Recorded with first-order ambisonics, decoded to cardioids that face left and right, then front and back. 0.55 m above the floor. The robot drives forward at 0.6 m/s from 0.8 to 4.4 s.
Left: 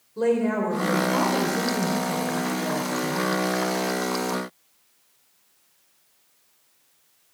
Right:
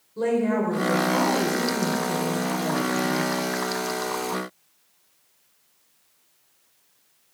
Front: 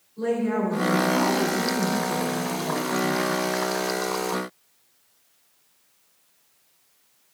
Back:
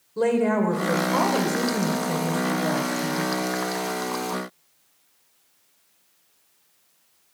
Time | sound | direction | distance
0.2 | a woman speaking | 175° left | 2 m